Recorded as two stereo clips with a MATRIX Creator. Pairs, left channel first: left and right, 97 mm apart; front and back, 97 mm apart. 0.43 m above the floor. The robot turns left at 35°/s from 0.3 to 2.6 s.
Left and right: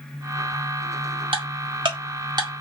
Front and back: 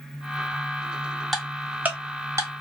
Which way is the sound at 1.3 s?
90° right.